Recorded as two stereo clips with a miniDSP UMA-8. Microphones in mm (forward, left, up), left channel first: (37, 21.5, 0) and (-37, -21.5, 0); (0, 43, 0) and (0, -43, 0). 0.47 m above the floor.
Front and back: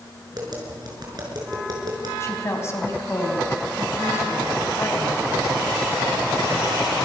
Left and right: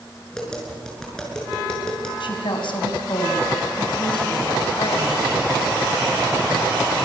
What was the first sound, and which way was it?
Tapping, 175° left.